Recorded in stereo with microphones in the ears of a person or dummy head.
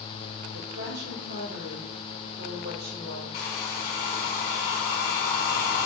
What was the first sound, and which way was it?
A woman speaking, 55° right (ahead or behind).